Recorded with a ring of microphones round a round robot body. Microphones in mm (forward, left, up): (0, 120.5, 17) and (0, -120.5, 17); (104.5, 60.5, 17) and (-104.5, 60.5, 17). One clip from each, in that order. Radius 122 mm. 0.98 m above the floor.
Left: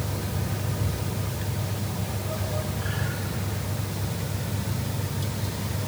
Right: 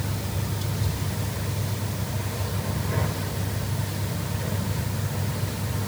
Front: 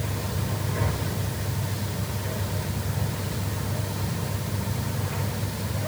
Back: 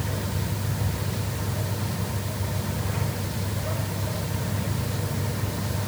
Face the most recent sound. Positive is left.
No sound to turn to.